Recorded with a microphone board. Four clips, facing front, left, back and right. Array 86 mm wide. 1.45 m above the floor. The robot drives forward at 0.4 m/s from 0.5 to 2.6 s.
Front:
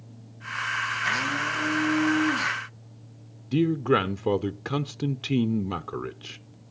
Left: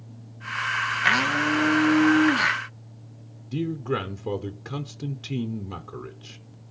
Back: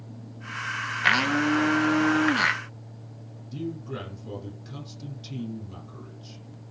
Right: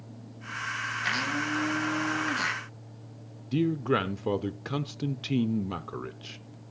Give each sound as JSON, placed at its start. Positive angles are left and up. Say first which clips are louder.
{"t": 1.0, "sound": "a blender", "louder": "left 8 dB, back 8 dB", "azimuth_deg": 145, "distance_m": 1.3}
{"t": 3.5, "sound": "a man speaking", "louder": "right 1 dB, front 12 dB", "azimuth_deg": -20, "distance_m": 0.5}